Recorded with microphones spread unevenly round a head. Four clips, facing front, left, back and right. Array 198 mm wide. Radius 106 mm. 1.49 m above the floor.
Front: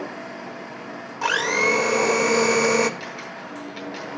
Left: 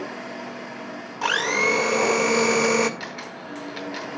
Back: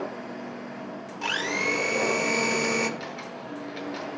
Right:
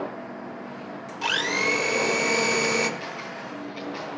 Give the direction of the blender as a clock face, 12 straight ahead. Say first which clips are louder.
Left 4 dB, front 7 dB; 11 o'clock.